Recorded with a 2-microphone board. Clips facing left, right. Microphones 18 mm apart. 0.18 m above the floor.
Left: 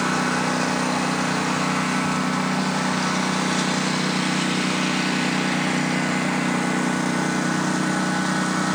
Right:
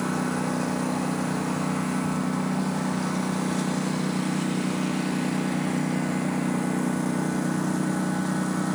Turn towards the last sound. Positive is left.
turn(degrees=55)  # may be behind; listen again after turning